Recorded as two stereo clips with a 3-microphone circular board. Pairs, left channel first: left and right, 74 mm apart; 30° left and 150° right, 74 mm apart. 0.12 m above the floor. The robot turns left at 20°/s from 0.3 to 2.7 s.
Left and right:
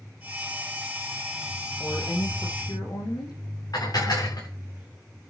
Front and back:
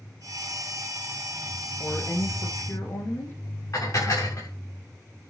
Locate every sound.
1.8 s a woman speaking: 100° left, 6 m; by 3.4 s 80° left, 6 m
3.7 s dishes clattering: 65° left, 7.5 m